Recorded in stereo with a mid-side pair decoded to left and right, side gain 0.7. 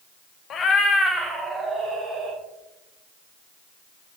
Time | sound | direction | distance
0.5 | a cat meowing | 40° left | 0.7 m